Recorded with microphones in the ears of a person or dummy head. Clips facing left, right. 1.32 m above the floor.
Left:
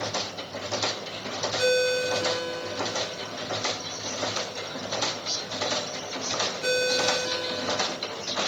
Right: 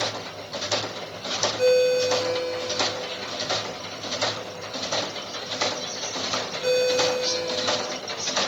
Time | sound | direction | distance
1.6 | a ringtone | 15° left (ahead or behind) | 2 m